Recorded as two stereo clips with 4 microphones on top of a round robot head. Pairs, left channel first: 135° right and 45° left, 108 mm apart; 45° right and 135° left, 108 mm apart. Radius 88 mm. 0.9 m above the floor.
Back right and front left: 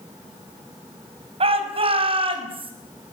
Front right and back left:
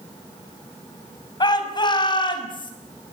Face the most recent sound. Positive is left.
turn(degrees=5)